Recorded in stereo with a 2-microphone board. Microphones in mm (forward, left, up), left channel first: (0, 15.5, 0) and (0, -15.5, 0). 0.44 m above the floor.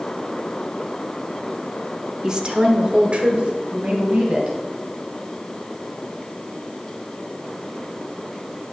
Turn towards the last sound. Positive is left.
turn(degrees=-40)  # may be behind; listen again after turning